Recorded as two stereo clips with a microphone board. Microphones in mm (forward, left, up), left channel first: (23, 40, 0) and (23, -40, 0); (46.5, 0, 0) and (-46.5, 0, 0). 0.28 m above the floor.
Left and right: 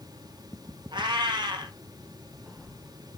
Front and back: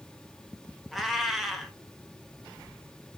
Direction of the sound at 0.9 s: 90° right.